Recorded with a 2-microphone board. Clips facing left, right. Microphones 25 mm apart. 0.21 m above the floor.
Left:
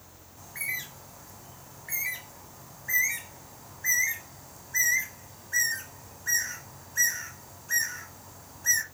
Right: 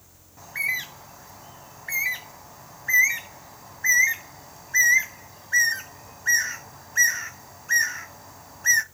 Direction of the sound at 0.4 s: 30° right (ahead or behind).